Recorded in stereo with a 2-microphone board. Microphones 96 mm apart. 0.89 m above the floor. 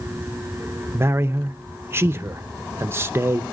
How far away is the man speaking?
About 0.6 m.